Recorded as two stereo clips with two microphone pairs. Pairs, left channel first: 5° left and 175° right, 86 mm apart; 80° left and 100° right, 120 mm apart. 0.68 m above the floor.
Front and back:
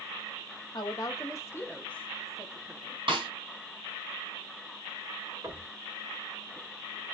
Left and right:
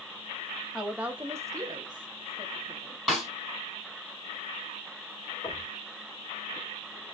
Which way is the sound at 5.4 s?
145° left.